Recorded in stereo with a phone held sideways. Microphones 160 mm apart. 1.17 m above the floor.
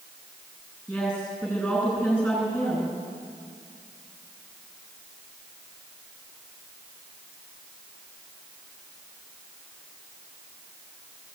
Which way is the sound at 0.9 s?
Centre (ahead or behind).